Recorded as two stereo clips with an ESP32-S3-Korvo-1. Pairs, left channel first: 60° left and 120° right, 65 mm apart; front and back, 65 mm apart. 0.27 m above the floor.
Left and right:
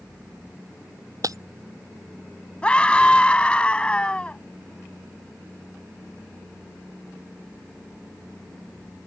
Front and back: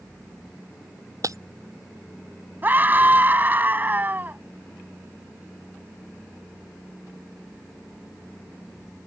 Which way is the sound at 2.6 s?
130° left.